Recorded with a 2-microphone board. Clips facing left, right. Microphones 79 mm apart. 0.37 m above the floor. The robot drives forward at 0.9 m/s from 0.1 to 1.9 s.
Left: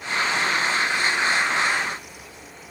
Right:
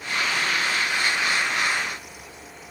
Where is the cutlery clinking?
No cutlery clinking in this recording.